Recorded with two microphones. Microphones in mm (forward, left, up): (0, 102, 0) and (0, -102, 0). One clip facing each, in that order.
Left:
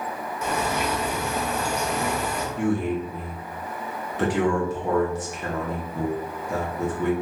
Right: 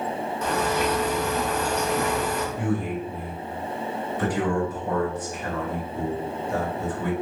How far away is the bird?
About 0.8 m.